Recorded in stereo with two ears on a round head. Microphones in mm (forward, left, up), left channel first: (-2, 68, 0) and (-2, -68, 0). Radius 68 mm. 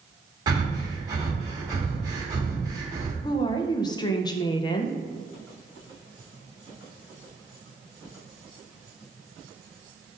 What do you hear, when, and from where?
0.5 s breathing: 25° right (ahead or behind), 1.1 m
3.2 s a woman speaking: 25° left (ahead or behind), 0.6 m